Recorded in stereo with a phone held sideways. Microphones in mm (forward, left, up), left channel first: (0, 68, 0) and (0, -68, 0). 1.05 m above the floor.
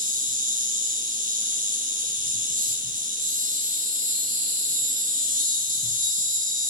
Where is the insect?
65° right (ahead or behind), 1.4 m.